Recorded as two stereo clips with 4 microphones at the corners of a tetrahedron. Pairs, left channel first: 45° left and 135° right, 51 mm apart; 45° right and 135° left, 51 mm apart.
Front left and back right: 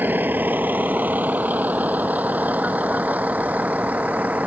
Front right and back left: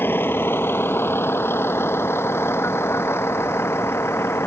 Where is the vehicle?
85° right; by 4.5 s 75° right.